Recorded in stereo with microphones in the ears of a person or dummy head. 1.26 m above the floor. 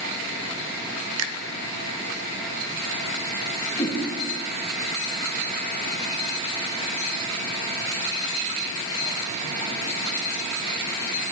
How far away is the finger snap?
About 0.6 m.